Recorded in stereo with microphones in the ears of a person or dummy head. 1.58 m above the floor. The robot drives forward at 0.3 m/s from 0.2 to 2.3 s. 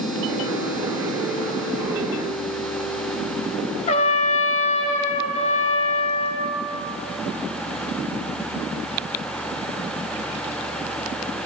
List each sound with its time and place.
3.9 s a trumpet: 45° left (ahead or behind), 0.8 m